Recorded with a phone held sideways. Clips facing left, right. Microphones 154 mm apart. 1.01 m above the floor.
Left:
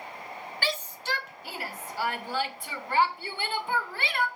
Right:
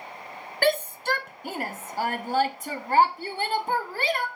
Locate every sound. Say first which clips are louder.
0.6 s a shout: right 11 dB; 55° right (ahead or behind), 0.7 m; by 4.3 s 40° right (ahead or behind), 2.5 m